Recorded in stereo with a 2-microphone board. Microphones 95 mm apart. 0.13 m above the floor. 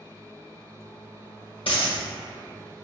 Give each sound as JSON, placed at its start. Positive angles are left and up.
{"t": 1.7, "sound": "a dropped coin", "side_deg": 70, "distance_m": 1.5}